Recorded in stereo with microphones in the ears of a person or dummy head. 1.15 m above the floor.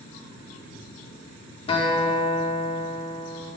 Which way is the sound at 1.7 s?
30° left (ahead or behind).